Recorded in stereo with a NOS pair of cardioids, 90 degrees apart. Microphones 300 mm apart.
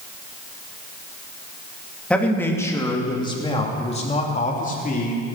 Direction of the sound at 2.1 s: 5° left.